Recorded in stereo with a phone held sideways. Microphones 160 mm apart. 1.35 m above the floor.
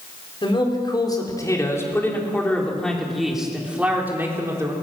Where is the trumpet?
No trumpet in this recording.